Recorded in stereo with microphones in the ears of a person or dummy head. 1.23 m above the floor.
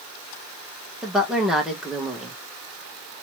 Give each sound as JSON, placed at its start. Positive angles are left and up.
{"t": 1.0, "sound": "a woman speaking", "side_deg": 5, "distance_m": 0.9}